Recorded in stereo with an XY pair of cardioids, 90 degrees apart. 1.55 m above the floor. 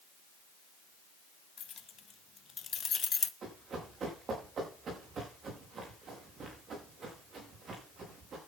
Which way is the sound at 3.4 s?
65° right.